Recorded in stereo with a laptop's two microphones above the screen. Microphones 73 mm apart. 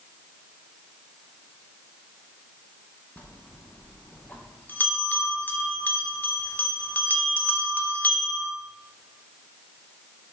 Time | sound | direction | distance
3.2 | a bell | 25° left (ahead or behind) | 0.7 m